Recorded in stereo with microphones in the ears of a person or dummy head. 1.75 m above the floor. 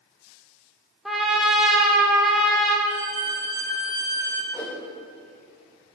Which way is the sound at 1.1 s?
Centre (ahead or behind).